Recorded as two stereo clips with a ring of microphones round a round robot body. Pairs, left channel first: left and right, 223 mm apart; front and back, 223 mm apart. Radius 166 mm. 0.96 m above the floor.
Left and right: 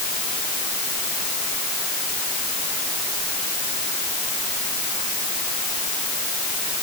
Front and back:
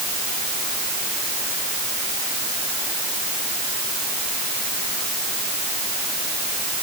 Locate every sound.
Only background noise.